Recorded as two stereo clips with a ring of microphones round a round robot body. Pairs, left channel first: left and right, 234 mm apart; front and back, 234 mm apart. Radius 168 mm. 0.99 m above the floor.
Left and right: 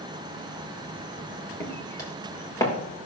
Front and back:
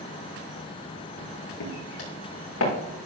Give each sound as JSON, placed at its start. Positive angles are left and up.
{"t": 1.6, "sound": "footsteps", "azimuth_deg": 15, "distance_m": 4.0}